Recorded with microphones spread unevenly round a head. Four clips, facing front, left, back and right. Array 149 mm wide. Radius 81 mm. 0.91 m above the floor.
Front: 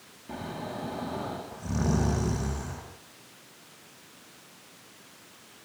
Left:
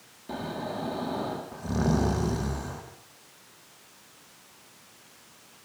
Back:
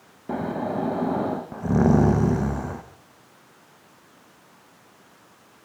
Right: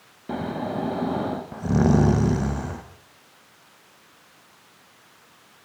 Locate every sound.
0.3 s snoring: 155° right, 1.6 m